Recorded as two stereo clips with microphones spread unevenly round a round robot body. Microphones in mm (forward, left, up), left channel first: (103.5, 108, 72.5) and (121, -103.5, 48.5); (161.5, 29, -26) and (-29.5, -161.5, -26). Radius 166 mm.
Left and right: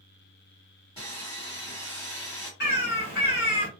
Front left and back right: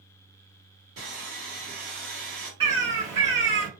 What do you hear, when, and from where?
1.0 s sawing: 170° left, 1.7 m
2.6 s a bird: 150° left, 1.0 m